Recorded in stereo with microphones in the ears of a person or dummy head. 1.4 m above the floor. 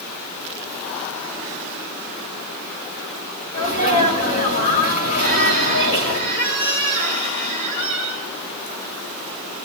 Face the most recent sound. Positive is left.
turn(degrees=45)  # may be behind; listen again after turning